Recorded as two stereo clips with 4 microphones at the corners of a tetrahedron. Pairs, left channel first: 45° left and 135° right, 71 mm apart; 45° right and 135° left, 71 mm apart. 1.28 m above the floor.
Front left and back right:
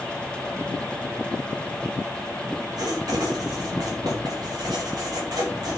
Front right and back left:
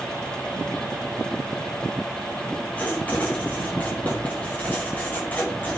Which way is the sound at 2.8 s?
110° right.